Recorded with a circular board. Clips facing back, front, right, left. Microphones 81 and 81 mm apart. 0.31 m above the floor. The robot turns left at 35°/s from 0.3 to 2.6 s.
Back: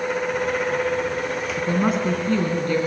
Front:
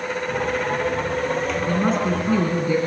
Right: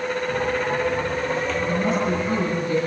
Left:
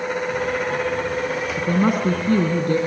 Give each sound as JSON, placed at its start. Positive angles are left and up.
{"t": 1.6, "sound": "a woman speaking", "azimuth_deg": 110, "distance_m": 2.5}